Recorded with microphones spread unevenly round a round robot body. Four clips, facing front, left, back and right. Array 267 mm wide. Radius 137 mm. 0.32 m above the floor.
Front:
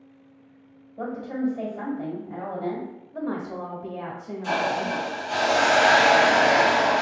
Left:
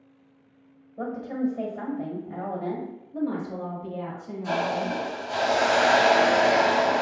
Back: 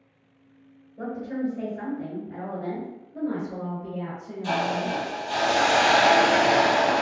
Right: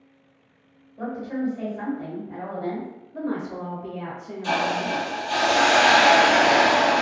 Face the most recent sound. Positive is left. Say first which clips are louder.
# right 2 dB, front 1 dB
turn(degrees=-100)